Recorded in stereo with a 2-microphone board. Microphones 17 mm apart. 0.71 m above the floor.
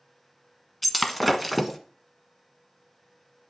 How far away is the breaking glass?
About 1.2 m.